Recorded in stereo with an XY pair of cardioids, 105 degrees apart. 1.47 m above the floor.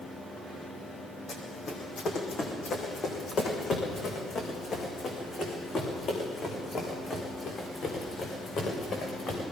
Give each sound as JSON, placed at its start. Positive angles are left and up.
{"t": 1.3, "sound": "running footsteps", "azimuth_deg": 45, "distance_m": 5.0}